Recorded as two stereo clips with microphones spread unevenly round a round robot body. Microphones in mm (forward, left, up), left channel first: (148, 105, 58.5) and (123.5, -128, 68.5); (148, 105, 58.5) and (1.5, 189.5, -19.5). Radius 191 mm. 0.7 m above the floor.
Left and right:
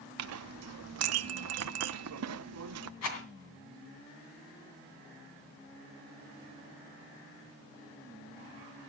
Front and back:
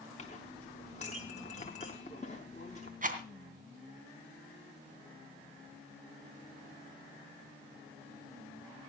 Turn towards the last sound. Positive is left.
turn(degrees=110)